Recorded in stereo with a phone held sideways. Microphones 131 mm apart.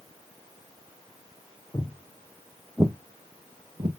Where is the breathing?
I don't hear breathing.